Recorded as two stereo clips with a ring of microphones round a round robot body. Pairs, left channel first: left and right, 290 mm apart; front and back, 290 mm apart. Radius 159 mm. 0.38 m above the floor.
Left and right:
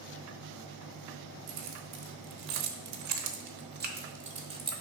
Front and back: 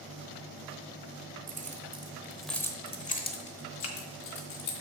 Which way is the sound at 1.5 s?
120° right.